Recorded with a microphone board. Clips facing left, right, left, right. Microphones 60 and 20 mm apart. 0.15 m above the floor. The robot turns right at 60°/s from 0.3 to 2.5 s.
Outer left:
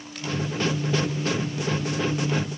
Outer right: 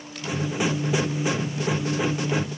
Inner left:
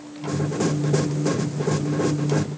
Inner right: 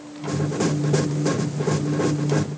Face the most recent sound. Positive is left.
No sound to turn to.